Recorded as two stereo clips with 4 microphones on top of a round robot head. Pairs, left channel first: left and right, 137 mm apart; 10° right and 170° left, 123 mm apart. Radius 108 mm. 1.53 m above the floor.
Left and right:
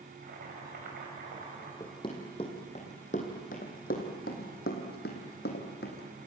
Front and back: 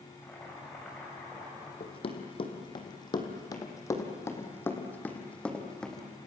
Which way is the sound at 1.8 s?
25° left.